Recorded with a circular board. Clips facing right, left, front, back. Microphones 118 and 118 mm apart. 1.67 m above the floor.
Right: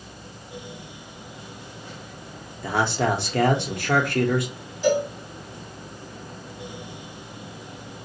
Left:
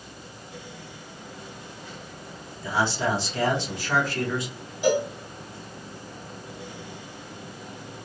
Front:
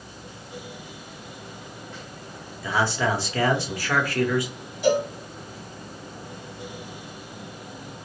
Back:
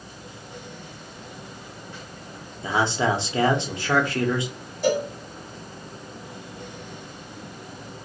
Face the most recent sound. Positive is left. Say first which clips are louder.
# right 1 dB, front 1 dB
turn(degrees=160)